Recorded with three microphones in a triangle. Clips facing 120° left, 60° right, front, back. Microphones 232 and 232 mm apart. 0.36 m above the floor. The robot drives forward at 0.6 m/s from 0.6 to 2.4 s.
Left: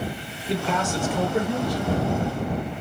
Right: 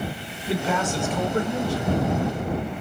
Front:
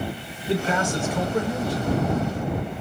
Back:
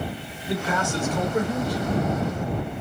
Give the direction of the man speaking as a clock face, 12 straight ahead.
11 o'clock.